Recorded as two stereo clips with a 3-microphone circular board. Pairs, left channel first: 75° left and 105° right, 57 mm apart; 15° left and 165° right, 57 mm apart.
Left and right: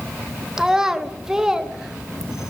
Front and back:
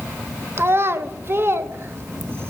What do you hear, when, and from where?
0.6 s a child speaking: straight behind, 0.5 m